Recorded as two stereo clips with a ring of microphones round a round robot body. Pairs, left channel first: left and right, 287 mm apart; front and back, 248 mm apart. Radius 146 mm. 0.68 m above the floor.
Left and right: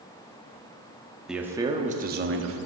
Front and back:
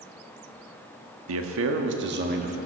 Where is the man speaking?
Straight behind, 1.0 m; by 2.6 s 120° right, 1.0 m.